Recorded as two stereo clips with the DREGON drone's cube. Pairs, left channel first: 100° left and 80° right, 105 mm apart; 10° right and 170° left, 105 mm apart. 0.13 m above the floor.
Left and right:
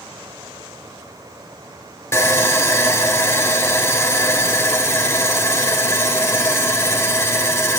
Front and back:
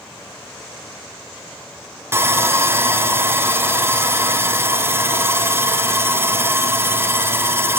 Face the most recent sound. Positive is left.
turn(degrees=135)